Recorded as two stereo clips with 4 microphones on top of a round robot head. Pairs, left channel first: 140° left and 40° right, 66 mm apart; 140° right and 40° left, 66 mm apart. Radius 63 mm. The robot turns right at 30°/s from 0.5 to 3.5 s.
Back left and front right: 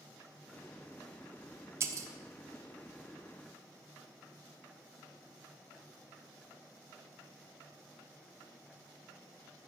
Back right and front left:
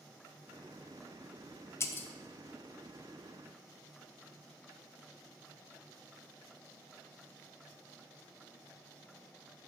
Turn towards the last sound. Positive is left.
turn(degrees=-40)